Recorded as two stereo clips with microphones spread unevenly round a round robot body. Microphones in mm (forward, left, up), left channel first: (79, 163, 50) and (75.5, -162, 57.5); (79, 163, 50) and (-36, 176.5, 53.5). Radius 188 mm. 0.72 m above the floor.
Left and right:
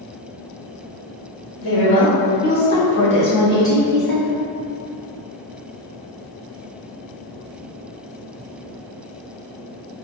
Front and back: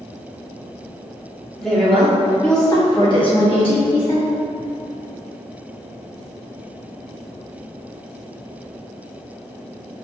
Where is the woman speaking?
75° left, 1.3 m; by 4.3 s 5° left, 2 m.